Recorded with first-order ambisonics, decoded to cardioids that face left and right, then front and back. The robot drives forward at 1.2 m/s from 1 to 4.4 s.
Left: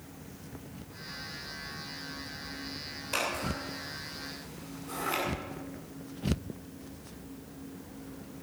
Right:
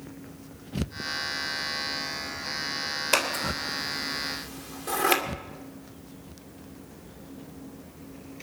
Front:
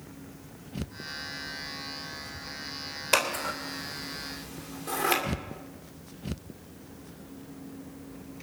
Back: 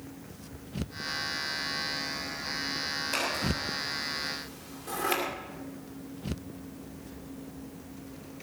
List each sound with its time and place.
3.1 s scissors: 45° right, 3 m; by 5.2 s 75° right, 2 m